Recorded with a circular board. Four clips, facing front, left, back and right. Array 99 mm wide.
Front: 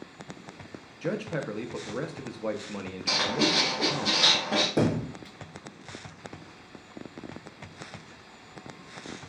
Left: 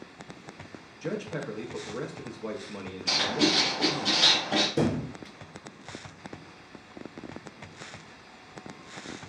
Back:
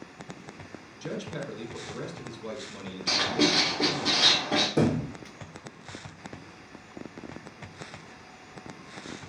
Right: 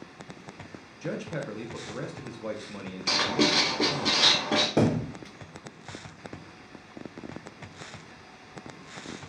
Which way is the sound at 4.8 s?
75° right.